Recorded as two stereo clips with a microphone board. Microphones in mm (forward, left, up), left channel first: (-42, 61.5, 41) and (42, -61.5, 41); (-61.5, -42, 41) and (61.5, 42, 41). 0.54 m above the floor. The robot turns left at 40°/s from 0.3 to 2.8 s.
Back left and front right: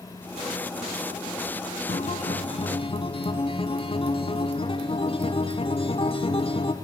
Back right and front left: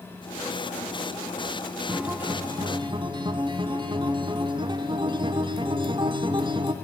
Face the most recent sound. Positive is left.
turn(degrees=85)